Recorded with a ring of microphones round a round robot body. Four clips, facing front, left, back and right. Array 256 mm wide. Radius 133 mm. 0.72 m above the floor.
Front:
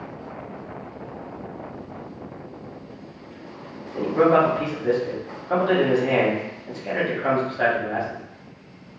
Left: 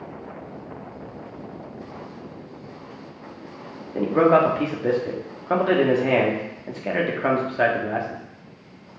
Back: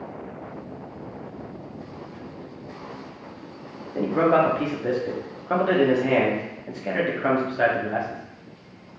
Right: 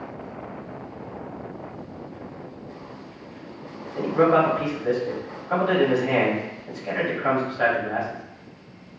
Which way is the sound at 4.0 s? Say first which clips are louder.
Left 2 dB, front 2 dB; 105° left.